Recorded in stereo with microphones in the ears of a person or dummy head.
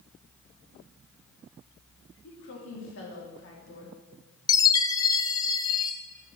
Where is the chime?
25° left (ahead or behind), 1.0 m.